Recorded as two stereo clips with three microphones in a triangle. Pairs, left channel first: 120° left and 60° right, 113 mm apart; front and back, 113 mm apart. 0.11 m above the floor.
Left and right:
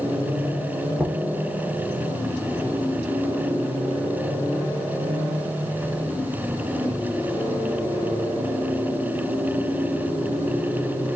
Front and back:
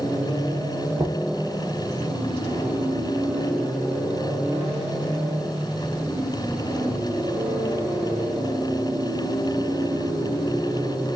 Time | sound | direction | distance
1.0 | knocking | 150° right | 1.0 m